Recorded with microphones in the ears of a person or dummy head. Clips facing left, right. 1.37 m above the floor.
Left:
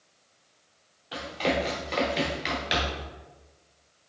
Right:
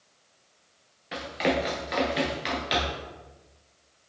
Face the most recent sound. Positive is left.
turn(degrees=10)  # may be behind; listen again after turning